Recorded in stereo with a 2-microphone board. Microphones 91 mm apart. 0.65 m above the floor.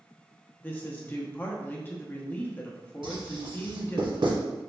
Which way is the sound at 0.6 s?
20° left (ahead or behind).